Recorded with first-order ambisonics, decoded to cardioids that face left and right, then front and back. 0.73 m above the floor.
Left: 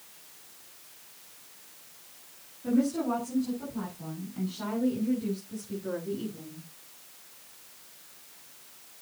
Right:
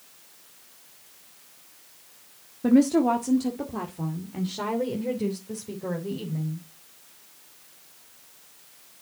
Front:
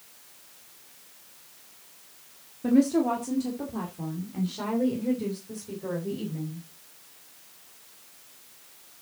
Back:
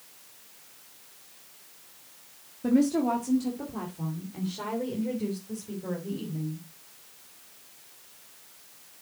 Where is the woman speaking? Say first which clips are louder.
Right 8 dB, front 2 dB; 90° right, 1.6 m; by 6.7 s 80° right, 4 m.